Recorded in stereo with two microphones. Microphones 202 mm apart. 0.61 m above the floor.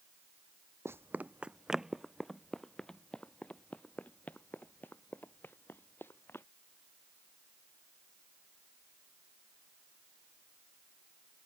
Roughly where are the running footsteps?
Centre.